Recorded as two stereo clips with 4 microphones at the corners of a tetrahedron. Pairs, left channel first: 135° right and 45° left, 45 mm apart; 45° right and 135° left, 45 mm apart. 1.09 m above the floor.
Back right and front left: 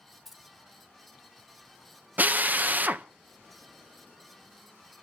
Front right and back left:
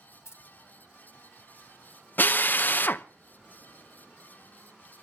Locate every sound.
0.2 s keys jangling: 40° right, 1.4 m
2.2 s a drill: 5° right, 0.6 m